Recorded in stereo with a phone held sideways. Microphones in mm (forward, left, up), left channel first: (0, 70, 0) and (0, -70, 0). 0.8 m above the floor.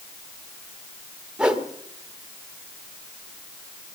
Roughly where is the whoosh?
Centre.